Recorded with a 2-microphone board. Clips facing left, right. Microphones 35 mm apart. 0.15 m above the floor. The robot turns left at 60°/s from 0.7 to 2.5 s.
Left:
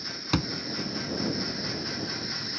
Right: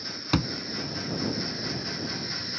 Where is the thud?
5° right (ahead or behind).